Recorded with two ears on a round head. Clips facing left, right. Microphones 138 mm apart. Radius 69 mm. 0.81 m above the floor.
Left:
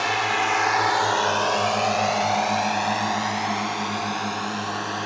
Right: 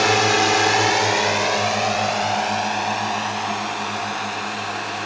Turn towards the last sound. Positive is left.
turn(degrees=25)  # may be behind; listen again after turning